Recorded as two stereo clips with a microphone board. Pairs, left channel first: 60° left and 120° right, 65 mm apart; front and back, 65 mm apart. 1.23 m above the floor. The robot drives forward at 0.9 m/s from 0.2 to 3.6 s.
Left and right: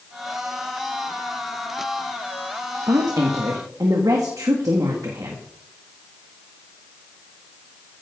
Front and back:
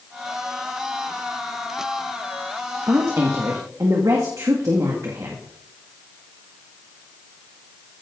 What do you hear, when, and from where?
2.9 s a woman speaking: 135° right, 1.5 m; by 5.5 s 145° right, 2.0 m